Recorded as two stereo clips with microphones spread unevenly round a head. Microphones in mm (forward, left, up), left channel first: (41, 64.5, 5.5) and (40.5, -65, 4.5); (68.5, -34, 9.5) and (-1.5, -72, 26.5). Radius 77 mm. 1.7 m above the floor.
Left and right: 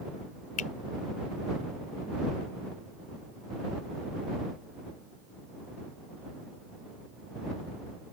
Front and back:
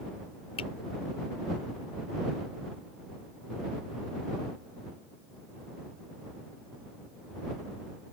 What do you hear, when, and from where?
0.6 s a finger snap: 65° left